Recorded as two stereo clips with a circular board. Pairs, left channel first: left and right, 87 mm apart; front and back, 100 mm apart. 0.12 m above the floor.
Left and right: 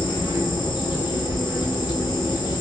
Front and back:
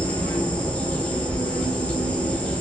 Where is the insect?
75° left, 0.9 m.